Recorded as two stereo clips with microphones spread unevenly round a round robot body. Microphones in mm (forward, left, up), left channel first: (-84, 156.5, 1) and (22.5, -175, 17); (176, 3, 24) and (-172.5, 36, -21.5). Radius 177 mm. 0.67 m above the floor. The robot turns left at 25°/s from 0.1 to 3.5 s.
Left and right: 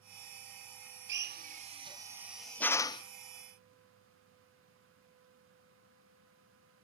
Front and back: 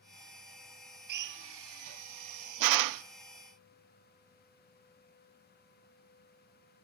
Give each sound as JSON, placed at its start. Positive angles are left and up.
{"t": 1.1, "sound": "a drill", "azimuth_deg": -130, "distance_m": 0.6}